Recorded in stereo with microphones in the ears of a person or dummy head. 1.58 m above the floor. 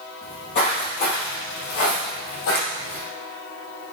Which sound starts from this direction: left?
Footsteps, at 0.2 s.